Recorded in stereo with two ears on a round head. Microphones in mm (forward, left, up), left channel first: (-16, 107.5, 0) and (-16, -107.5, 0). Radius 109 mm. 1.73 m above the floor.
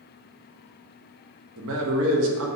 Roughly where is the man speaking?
Right.